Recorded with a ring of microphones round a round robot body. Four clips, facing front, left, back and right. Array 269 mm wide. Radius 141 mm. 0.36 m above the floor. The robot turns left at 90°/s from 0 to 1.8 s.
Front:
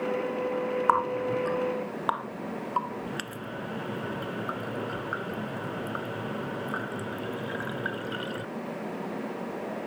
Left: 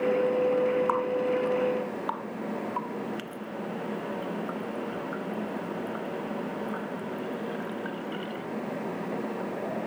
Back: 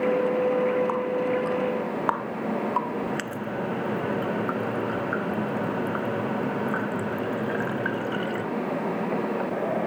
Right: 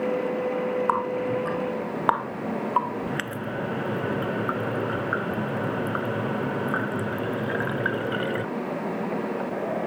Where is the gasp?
No gasp in this recording.